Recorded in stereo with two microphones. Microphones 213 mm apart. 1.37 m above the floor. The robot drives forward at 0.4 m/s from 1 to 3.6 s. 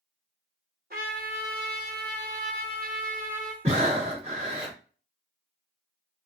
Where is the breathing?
30° right (ahead or behind), 1.4 m.